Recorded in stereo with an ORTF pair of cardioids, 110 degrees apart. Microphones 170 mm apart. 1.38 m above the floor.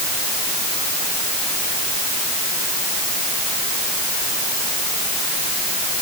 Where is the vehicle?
No vehicle in this recording.